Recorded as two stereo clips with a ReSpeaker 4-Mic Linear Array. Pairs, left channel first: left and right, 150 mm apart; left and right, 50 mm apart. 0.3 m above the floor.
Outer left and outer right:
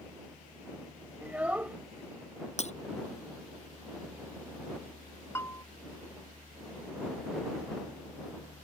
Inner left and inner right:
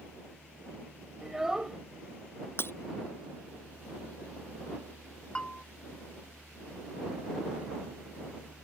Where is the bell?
20° left (ahead or behind).